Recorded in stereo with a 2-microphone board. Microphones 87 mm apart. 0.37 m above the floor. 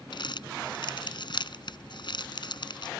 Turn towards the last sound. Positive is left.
turn(degrees=60)  # may be behind; listen again after turning